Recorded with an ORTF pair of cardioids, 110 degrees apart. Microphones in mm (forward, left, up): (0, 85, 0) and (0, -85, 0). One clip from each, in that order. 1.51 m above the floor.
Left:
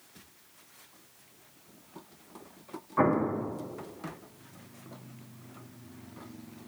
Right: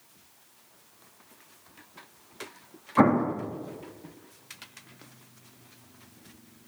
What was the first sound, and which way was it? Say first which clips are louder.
An explosion: right 4 dB; 40° right.